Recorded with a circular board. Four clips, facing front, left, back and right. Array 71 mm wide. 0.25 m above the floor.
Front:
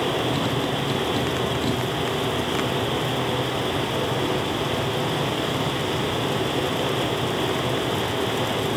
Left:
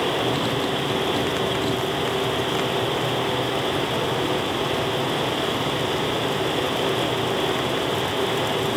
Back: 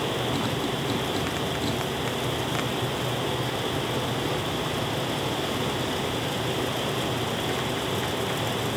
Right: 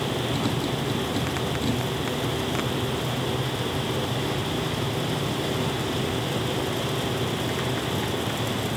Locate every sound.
Only background noise.